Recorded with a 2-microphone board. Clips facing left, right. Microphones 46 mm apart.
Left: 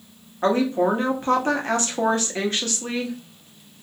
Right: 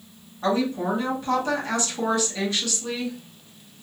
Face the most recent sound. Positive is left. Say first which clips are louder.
# left 4 dB
turn(degrees=45)  # may be behind; listen again after turning